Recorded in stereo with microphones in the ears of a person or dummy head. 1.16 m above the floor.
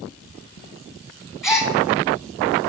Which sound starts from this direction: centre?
A gasp, at 1.4 s.